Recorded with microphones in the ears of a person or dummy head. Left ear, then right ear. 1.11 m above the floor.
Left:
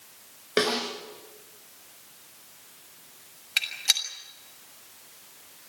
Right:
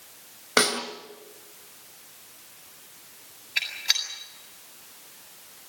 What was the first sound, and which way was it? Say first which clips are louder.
A snare drum: right 2 dB; 40° right (ahead or behind).